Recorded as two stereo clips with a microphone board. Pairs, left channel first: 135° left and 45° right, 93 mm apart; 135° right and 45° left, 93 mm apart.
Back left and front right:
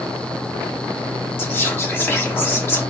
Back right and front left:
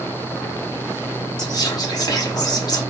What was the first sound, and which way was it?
Whispering, 170° right.